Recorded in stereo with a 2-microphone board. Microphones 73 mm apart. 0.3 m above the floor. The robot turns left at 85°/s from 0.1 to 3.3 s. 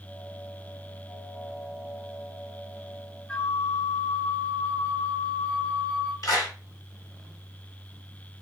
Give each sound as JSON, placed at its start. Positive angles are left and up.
{"t": 3.3, "sound": "a flute", "side_deg": 15, "distance_m": 1.6}
{"t": 6.2, "sound": "a clap", "side_deg": 50, "distance_m": 2.0}